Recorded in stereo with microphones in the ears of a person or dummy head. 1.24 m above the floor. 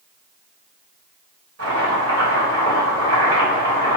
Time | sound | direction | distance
1.6 | chopping | 75° right (ahead or behind) | 1.3 m